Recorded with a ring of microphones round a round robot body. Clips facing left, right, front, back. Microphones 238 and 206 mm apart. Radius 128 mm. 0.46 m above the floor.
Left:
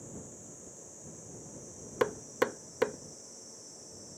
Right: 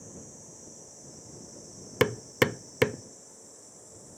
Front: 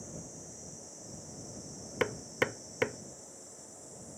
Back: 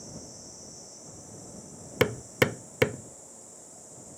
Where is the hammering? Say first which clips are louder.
Right 5 dB, back 7 dB; 135° right.